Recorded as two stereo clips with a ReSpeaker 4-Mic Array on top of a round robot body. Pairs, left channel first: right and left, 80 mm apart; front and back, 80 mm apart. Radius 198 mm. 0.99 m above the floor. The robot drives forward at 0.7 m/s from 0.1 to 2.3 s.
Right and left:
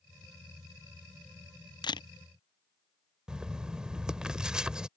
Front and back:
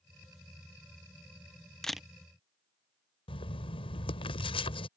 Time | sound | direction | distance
1.8 | a camera shutter | 80° right | ?
3.3 | writing | 10° left | ?